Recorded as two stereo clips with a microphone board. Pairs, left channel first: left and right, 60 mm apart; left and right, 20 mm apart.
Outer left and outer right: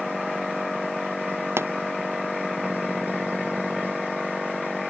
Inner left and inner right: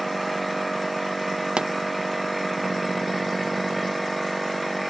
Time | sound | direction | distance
1.6 | a pop | 45° right (ahead or behind) | ?